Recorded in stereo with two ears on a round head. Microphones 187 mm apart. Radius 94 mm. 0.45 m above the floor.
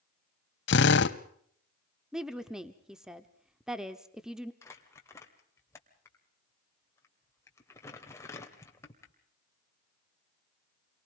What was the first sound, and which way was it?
A drill, 60° left (ahead or behind).